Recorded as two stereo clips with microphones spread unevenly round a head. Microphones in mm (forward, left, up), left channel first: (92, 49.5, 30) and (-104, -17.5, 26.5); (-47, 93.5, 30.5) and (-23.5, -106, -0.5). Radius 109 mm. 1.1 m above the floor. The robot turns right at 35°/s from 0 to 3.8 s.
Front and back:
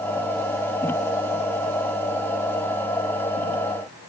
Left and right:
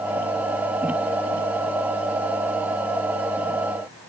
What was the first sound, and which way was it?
Only background noise.